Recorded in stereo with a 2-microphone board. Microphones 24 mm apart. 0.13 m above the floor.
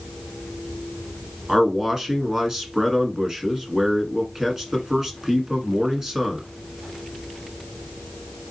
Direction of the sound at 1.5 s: 20° right (ahead or behind).